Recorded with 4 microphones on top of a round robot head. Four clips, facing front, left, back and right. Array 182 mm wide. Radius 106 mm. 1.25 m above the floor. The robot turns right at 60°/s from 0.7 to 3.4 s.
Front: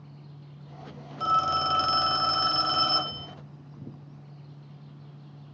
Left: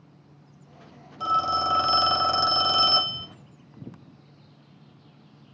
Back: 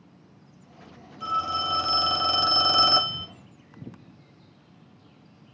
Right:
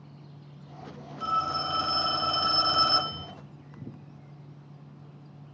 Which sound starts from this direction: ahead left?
A phone ringing, at 1.2 s.